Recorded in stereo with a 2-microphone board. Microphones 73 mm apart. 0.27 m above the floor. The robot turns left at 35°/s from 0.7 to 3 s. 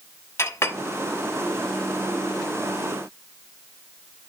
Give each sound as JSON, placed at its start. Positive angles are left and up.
{"t": 0.4, "sound": "a clink", "side_deg": 40, "distance_m": 1.0}